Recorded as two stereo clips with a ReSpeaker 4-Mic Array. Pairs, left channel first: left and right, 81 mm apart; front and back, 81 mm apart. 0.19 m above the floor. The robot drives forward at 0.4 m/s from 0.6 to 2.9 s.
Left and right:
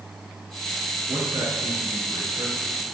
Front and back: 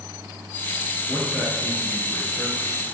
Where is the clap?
I don't hear a clap.